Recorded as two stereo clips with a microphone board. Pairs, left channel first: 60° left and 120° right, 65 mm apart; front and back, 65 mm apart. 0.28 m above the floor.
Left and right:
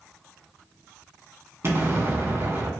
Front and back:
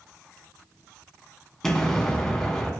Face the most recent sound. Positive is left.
turn(degrees=-85)